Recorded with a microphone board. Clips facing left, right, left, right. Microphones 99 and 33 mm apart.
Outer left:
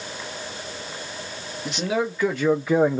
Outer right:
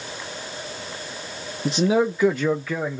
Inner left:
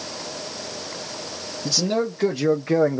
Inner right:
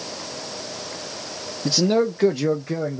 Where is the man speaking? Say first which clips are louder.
Outer right 5 dB, inner right 4 dB; 35° right (ahead or behind), 1.0 m; by 3.0 s 50° left (ahead or behind), 0.6 m.